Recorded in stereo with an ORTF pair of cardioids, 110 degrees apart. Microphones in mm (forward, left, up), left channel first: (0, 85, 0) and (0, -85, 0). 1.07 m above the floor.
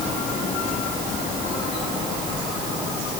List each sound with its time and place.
Only background noise.